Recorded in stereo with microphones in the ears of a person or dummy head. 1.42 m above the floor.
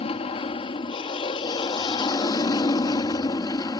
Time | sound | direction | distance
0.0 | an aircraft | 30° left (ahead or behind) | ?